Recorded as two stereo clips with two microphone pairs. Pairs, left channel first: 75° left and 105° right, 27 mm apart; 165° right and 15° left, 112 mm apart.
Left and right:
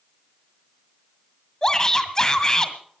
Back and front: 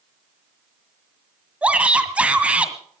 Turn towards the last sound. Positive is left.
turn(degrees=70)